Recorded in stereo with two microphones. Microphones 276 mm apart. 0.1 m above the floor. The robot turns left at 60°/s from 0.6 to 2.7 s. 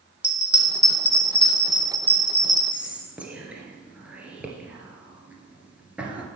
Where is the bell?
65° left (ahead or behind), 1.9 m; by 2.6 s 50° right (ahead or behind), 1.9 m.